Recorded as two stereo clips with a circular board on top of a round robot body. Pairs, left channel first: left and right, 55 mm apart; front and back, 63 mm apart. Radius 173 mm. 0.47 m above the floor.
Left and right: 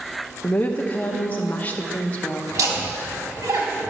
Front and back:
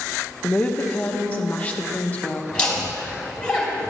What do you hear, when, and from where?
0.4 s a woman speaking: 50° left, 1.0 m
2.5 s laughter: 75° right, 3.5 m